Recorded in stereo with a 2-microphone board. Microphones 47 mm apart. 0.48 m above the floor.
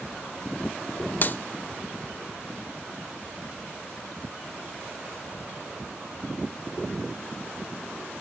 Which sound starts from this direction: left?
A clap, at 1.2 s.